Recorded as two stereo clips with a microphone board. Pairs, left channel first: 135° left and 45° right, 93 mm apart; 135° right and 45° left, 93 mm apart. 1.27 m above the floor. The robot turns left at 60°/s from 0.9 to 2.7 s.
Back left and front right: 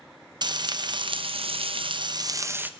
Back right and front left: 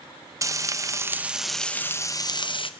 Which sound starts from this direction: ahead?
Frying, at 0.4 s.